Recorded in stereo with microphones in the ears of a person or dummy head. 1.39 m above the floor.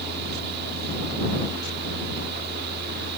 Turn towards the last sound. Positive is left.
turn(degrees=-65)  # may be behind; listen again after turning